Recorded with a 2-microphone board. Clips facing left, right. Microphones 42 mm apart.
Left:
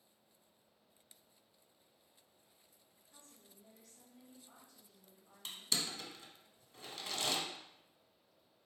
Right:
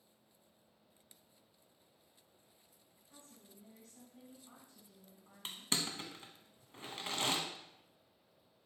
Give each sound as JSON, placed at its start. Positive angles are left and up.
{"t": 3.1, "sound": "a woman speaking", "side_deg": -55, "distance_m": 2.0}
{"t": 5.5, "sound": "crushing", "side_deg": -40, "distance_m": 0.6}